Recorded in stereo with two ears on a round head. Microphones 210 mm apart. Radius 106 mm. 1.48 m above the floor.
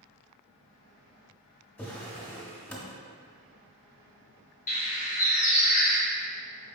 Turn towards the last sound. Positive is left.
turn(degrees=30)  # may be behind; listen again after turning